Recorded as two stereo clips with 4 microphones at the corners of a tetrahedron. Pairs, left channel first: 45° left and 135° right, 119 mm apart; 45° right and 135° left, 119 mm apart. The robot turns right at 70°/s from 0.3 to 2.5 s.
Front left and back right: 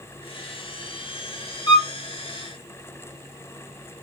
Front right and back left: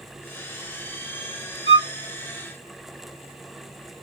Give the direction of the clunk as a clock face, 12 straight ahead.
I don't hear a clunk.